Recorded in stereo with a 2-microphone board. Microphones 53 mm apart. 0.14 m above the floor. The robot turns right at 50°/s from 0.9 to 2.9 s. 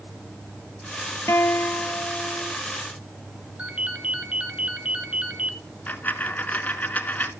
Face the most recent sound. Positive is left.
turn(degrees=30)  # may be behind; listen again after turning